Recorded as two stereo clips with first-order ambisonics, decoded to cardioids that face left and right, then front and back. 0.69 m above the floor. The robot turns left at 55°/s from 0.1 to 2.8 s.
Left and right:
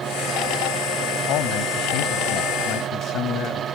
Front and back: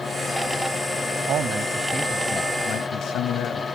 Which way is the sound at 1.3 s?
130° left.